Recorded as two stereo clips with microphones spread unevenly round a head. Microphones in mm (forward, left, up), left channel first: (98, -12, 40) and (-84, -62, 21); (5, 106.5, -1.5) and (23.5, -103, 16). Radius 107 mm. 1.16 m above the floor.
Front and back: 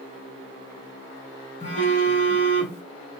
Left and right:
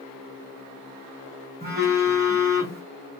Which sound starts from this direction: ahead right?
A phone buzzing, at 1.6 s.